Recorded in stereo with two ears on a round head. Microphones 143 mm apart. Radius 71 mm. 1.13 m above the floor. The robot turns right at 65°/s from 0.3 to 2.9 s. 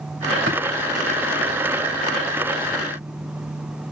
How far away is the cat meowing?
No cat meowing in this recording.